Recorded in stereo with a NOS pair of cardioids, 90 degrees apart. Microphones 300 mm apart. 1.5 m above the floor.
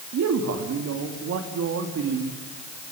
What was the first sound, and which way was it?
A man speaking, 60° right.